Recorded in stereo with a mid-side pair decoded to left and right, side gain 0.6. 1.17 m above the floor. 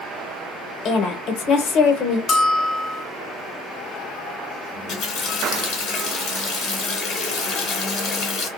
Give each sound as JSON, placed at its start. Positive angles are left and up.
{"t": 0.8, "sound": "a woman speaking", "azimuth_deg": 65, "distance_m": 1.0}
{"t": 2.3, "sound": "a bell", "azimuth_deg": 45, "distance_m": 1.1}
{"t": 4.8, "sound": "a running tap", "azimuth_deg": 65, "distance_m": 1.1}